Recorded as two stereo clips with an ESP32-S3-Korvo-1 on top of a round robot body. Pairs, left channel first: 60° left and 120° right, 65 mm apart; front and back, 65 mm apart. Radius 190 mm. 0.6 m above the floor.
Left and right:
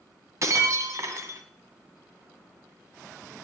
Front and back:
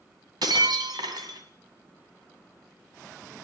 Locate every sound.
0.4 s breaking glass: 165° right, 2.5 m